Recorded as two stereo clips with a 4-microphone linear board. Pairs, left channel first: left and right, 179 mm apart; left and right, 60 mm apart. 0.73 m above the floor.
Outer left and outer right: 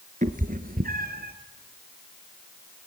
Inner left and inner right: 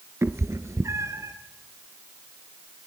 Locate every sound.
0.2 s a cat meowing: 45° right (ahead or behind), 1.2 m; by 1.3 s 60° right (ahead or behind), 2.0 m